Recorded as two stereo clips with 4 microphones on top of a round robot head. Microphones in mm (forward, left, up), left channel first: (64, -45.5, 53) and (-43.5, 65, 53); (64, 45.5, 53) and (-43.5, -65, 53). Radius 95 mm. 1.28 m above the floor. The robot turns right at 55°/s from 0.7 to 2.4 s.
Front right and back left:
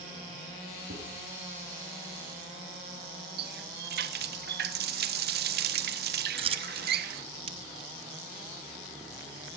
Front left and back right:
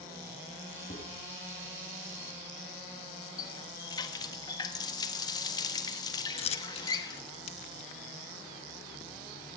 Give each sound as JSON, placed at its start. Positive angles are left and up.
{"t": 0.9, "sound": "dishes clattering", "azimuth_deg": 100, "distance_m": 7.5}
{"t": 3.4, "sound": "a running tap", "azimuth_deg": 115, "distance_m": 1.1}
{"t": 6.4, "sound": "a dropped coin", "azimuth_deg": 90, "distance_m": 0.7}